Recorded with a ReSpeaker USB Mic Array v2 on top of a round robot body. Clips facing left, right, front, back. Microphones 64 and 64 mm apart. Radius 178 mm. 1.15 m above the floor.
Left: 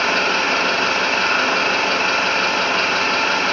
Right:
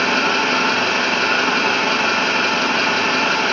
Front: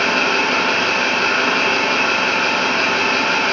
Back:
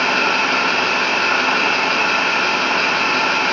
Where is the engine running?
85° right, 0.8 m.